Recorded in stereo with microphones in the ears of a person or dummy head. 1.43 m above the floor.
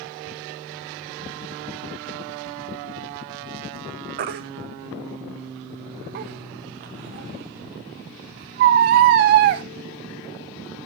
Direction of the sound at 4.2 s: 35° right (ahead or behind).